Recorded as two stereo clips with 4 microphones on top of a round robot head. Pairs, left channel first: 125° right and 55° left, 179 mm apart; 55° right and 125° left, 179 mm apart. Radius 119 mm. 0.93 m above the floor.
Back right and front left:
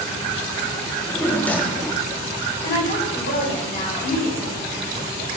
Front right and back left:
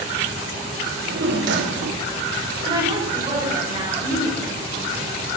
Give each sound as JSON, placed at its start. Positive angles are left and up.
{"t": 0.9, "sound": "a drawer", "azimuth_deg": 150, "distance_m": 1.1}
{"t": 2.6, "sound": "a woman speaking", "azimuth_deg": -170, "distance_m": 4.0}